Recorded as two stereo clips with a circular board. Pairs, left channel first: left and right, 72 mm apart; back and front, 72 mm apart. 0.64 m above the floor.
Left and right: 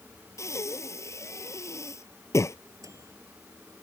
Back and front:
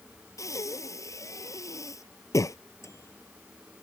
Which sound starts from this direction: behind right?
A microwave, at 2.8 s.